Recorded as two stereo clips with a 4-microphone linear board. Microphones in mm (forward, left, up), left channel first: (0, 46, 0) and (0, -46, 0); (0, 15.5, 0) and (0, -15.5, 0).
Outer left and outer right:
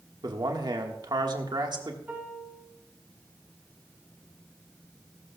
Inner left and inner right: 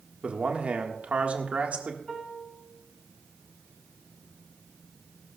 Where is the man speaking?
50° right (ahead or behind), 1.7 m.